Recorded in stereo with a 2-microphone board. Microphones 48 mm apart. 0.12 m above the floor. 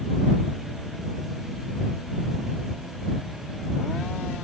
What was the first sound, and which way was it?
Only background noise.